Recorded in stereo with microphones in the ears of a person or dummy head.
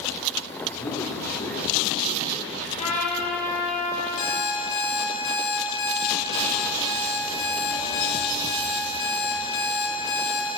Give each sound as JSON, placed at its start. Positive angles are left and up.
{"t": 0.7, "sound": "a man speaking", "side_deg": 30, "distance_m": 5.0}
{"t": 2.8, "sound": "a trumpet", "side_deg": 40, "distance_m": 3.5}
{"t": 4.2, "sound": "an alarm clock", "side_deg": 50, "distance_m": 5.5}